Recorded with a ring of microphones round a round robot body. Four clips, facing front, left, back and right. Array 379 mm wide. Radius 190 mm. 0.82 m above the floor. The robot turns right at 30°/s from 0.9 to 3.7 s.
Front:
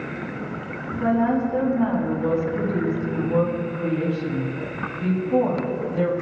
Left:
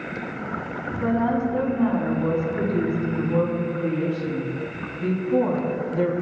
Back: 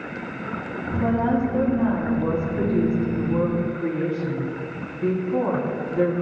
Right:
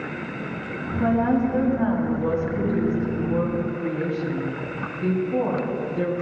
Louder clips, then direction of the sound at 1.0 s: Right 2 dB, front 1 dB; 85° right.